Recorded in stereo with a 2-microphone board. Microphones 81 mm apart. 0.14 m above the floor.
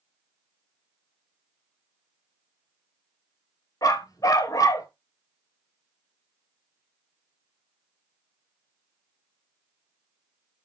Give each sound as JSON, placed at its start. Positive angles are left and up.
{"t": 3.8, "sound": "a dog barking", "side_deg": 50, "distance_m": 1.1}